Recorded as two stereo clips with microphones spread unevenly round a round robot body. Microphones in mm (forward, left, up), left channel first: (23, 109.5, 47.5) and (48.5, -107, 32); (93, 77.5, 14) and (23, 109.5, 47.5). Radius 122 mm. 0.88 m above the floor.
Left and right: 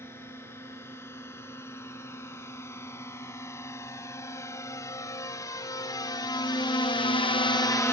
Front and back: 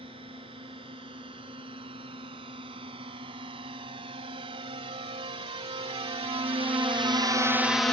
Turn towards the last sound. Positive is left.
turn(degrees=20)